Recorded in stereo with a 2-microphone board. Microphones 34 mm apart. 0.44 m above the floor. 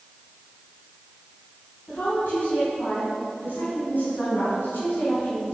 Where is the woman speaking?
65° left (ahead or behind), 3.5 m; by 5.5 s 70° left (ahead or behind), 4 m.